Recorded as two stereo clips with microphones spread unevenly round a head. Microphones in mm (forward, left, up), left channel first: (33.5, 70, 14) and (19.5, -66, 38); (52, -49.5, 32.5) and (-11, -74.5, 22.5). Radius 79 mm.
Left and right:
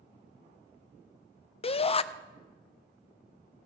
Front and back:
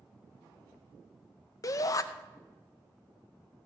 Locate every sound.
1.6 s a shout: 65° left, 0.6 m